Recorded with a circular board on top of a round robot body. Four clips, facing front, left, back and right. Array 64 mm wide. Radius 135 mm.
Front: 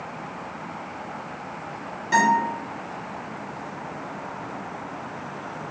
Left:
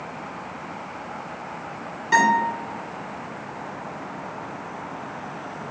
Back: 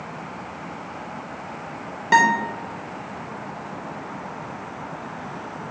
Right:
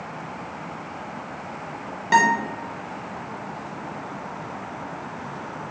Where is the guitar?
160° right, 0.6 m.